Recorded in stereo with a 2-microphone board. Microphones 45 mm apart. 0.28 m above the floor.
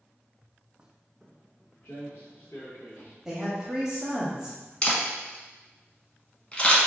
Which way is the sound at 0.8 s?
20° right (ahead or behind).